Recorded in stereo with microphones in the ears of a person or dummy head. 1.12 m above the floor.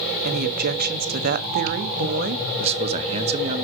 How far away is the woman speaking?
About 1.3 m.